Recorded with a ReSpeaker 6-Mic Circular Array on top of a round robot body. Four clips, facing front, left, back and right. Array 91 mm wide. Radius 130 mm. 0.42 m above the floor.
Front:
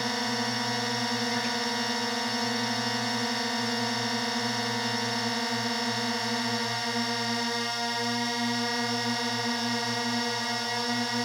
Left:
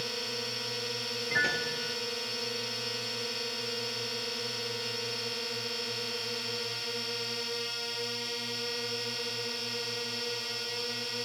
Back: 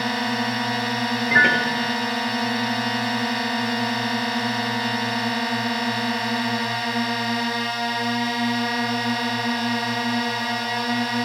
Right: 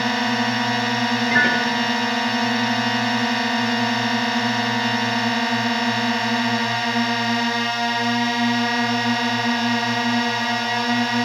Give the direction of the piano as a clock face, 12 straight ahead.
5 o'clock.